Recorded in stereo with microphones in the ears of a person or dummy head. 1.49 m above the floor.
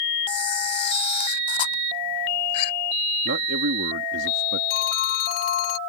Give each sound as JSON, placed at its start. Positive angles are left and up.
{"t": 0.3, "sound": "a camera shutter", "side_deg": 30}
{"t": 3.2, "sound": "a man speaking", "side_deg": -65}
{"t": 4.7, "sound": "a phone ringing", "side_deg": 60}